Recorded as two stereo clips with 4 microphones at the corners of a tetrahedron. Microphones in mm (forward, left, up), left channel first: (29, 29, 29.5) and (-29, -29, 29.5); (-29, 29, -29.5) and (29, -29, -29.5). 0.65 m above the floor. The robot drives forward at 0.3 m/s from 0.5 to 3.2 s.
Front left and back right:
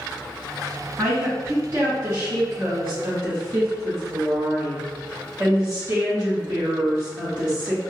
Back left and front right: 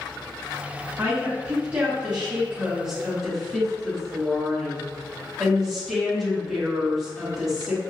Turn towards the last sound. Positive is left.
turn(degrees=-130)